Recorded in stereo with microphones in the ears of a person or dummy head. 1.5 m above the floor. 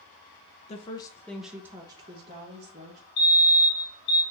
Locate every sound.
0.7 s a woman speaking: 35° left (ahead or behind), 0.6 m; by 3.0 s 45° right (ahead or behind), 1.1 m
3.2 s a fire alarm: 55° left (ahead or behind), 1.7 m